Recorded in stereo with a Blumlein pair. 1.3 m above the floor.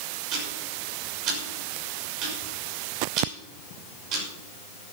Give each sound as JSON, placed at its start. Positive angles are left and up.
{"t": 0.3, "sound": "ticking", "azimuth_deg": -35, "distance_m": 6.5}